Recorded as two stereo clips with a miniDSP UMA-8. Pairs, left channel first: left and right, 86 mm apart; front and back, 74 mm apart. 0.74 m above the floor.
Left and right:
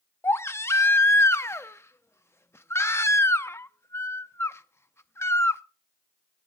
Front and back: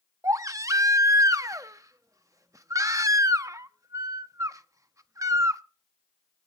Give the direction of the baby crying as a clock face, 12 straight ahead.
7 o'clock.